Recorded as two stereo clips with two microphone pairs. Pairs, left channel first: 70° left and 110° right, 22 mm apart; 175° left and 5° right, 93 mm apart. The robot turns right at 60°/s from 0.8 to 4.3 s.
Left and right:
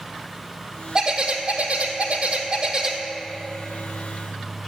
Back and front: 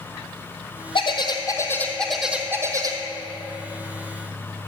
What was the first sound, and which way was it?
A bird, 170° right.